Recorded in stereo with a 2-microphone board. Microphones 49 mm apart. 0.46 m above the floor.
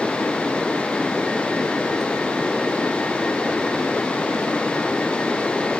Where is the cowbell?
No cowbell in this recording.